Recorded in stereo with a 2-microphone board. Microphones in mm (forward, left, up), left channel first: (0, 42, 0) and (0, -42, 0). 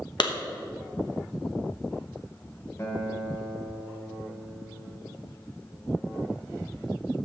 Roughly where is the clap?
Left.